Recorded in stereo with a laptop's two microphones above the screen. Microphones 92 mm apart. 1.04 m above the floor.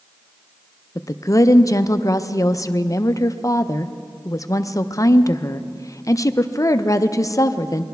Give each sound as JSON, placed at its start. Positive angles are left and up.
{"t": 0.9, "sound": "a woman speaking", "side_deg": 40, "distance_m": 0.5}